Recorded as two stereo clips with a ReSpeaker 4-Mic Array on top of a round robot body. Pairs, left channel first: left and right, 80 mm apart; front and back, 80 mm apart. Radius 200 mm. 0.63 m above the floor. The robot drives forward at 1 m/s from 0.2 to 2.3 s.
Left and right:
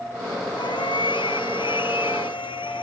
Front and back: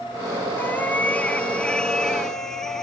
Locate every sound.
0.6 s a cat meowing: 70° left; by 2.8 s 85° left